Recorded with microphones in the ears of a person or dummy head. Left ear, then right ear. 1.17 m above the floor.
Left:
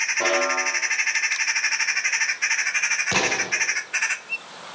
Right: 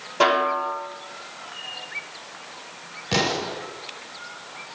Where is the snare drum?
65° right (ahead or behind), 6 m.